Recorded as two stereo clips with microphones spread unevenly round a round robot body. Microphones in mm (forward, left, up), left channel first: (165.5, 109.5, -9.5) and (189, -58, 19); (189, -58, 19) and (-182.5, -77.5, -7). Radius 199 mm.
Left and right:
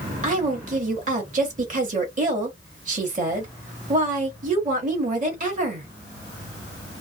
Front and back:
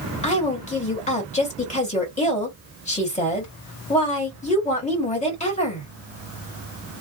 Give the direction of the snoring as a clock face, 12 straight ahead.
No snoring in this recording.